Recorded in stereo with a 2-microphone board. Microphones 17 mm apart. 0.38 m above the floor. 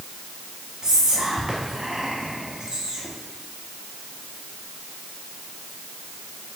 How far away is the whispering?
About 2.5 m.